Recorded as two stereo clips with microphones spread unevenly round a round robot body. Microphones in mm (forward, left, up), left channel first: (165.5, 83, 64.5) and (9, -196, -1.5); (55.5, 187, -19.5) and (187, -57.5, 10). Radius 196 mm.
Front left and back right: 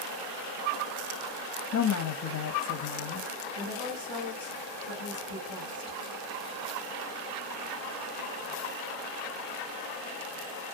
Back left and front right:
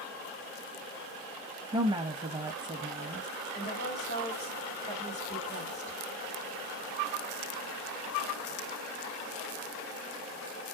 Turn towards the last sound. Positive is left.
turn(degrees=145)